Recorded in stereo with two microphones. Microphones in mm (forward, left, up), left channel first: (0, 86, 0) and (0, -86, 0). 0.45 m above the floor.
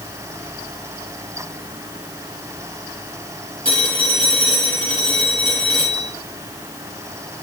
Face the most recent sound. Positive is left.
turn(degrees=-30)  # may be behind; listen again after turning